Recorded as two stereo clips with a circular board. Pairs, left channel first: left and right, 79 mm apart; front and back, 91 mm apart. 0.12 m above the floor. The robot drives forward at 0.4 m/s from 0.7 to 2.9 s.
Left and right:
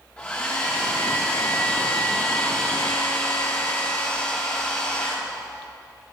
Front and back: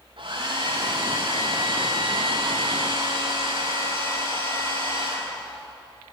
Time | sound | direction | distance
0.2 | a hair dryer | 160° left | 6 m